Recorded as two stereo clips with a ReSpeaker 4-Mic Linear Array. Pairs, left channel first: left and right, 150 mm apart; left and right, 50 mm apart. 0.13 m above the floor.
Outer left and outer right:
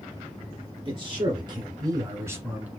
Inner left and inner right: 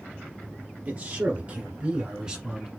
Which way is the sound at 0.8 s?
35° right (ahead or behind).